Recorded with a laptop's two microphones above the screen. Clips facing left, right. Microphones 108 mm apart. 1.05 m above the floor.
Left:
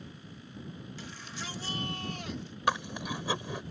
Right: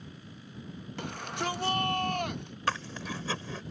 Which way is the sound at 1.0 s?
60° right (ahead or behind).